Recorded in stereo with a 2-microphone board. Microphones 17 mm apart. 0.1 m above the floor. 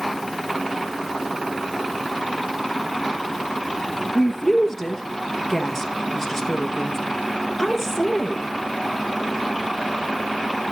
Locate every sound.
4.2 s a woman speaking: 15° left (ahead or behind), 1.9 m